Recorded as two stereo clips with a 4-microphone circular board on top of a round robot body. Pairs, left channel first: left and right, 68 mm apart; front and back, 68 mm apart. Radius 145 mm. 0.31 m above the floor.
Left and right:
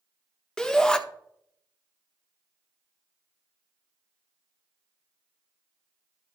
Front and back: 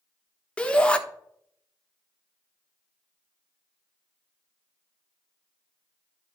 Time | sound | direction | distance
0.6 | a shout | 35° left | 1.5 m